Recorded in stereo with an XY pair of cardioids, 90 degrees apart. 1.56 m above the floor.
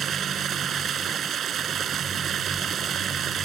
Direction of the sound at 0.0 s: 65° right.